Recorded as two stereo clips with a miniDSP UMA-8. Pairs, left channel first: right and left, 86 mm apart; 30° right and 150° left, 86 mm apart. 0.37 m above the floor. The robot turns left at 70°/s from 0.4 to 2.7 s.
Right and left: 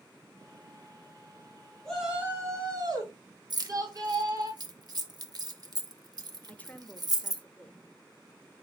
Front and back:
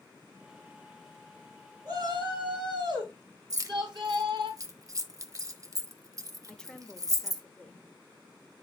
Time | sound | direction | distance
1.9 | a shout | 170° right | 3.5 m
3.5 | keys jangling | 110° left | 0.9 m
6.5 | a woman speaking | 90° right | 0.9 m